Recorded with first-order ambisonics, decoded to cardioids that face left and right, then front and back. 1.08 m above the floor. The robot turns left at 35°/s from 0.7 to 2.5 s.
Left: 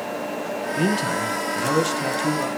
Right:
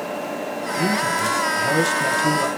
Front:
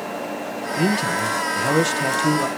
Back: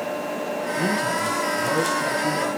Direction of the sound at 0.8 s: 50° left.